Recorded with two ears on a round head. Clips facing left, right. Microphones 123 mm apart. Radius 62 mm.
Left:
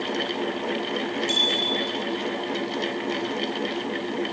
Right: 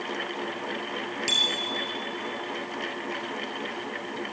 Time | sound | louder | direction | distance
1.3 | a bicycle bell | left 6 dB | 75° right (ahead or behind) | 10 m